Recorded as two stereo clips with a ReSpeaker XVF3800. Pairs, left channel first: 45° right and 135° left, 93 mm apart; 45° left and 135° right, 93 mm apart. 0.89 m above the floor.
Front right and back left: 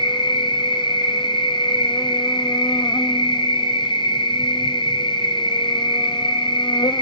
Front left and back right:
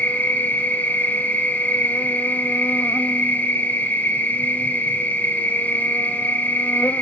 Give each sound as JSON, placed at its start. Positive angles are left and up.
{"t": 0.0, "sound": "an insect", "azimuth_deg": -25, "distance_m": 1.1}